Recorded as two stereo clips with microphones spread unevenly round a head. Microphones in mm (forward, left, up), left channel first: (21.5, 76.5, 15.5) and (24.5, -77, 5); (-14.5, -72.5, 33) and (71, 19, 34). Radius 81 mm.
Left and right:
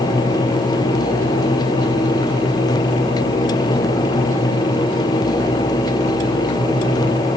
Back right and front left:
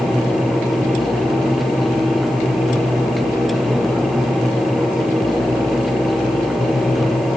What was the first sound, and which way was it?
Only background noise.